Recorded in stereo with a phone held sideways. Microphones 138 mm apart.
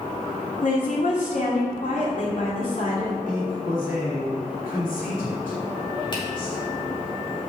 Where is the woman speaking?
65° left (ahead or behind), 3 m.